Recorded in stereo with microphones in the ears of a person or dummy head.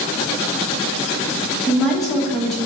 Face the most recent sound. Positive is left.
turn(degrees=5)  # may be behind; listen again after turning